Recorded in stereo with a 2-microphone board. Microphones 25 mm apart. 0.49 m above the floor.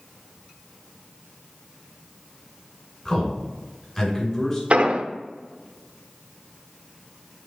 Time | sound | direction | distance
3.0 | a man speaking | 20° left (ahead or behind) | 2.5 m
4.7 | an explosion | 55° right (ahead or behind) | 0.7 m